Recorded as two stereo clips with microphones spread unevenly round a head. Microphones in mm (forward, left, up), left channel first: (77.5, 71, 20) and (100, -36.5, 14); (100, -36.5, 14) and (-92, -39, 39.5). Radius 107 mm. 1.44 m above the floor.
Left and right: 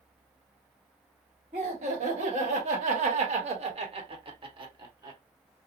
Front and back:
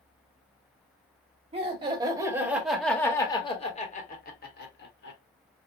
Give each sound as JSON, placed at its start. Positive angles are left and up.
{"t": 1.5, "sound": "laughter", "azimuth_deg": -120, "distance_m": 1.3}